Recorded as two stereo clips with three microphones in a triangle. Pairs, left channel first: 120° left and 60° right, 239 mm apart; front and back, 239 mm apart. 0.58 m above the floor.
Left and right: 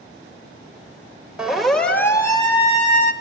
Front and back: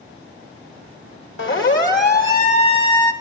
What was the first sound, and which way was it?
A siren, 25° left.